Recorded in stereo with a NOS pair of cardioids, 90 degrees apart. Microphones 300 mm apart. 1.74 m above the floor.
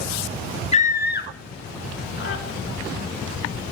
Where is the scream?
20° left, 0.9 m; by 2.4 s 45° left, 3.5 m.